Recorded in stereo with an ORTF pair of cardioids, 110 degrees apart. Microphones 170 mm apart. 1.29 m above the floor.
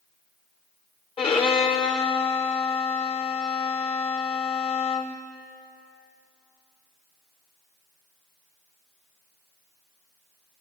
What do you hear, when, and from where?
1.2 s a violin: 35° left, 0.7 m